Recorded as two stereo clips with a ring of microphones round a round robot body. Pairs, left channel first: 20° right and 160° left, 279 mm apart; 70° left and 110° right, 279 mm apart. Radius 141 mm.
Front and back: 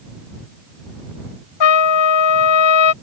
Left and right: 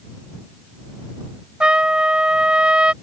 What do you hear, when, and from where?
1.6 s a trumpet: 25° right